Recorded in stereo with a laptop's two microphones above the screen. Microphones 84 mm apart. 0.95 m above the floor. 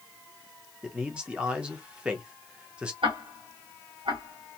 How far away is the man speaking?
About 0.7 m.